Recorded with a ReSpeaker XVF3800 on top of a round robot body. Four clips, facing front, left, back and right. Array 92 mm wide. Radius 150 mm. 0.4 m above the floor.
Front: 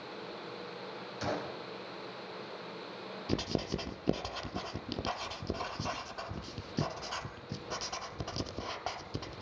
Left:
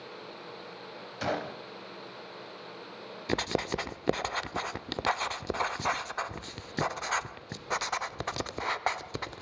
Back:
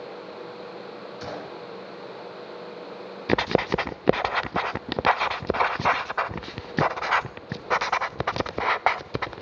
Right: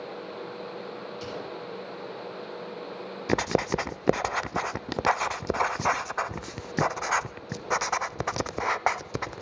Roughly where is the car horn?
I don't hear a car horn.